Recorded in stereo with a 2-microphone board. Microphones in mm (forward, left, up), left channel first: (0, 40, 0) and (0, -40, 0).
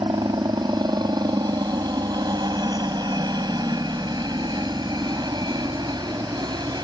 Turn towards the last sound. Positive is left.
turn(degrees=-60)  # may be behind; listen again after turning